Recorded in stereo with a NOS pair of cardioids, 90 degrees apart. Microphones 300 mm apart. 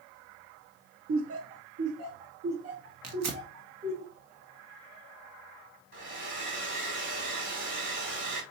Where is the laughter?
45° right, 0.6 m; by 4.0 s 60° right, 2.5 m.